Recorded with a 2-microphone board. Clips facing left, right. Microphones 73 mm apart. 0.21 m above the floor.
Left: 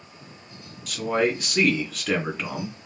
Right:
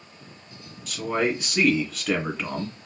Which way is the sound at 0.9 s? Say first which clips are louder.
Left 2 dB; 5° left (ahead or behind).